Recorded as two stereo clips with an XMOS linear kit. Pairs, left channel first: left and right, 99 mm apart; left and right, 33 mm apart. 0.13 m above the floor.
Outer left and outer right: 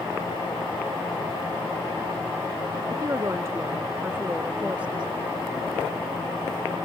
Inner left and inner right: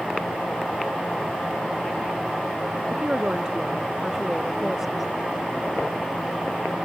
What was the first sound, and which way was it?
A woman speaking, 30° right (ahead or behind).